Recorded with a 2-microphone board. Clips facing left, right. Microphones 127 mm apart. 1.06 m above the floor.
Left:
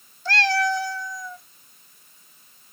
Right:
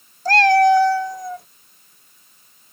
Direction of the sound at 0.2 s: 40° right (ahead or behind).